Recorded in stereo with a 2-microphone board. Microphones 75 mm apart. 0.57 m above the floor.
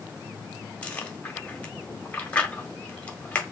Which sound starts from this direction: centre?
Chewing, at 0.8 s.